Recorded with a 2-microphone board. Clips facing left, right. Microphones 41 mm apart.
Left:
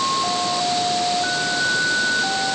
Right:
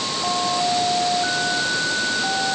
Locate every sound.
Only background noise.